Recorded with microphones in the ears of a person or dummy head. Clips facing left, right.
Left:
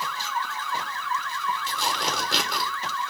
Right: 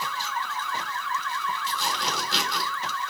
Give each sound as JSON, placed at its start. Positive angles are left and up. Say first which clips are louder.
{"t": 1.7, "sound": "tearing paper", "louder": "left 1 dB", "side_deg": 70, "distance_m": 3.5}